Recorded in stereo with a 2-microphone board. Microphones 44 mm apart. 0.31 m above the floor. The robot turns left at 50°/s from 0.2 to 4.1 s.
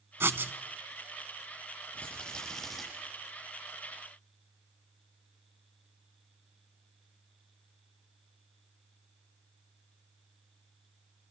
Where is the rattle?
40° left, 9.5 m; by 2.8 s 5° right, 9.5 m.